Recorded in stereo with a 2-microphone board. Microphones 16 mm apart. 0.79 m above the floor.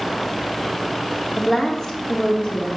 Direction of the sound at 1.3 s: 25° left (ahead or behind).